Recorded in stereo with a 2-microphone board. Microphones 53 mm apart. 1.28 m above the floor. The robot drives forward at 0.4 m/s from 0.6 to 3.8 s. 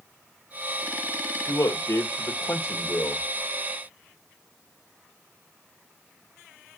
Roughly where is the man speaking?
Left.